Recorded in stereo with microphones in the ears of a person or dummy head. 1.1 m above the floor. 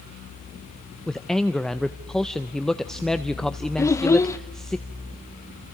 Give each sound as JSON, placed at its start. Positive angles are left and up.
{"t": 1.1, "sound": "a man speaking", "side_deg": 0, "distance_m": 0.5}
{"t": 3.8, "sound": "a child speaking", "side_deg": 15, "distance_m": 0.5}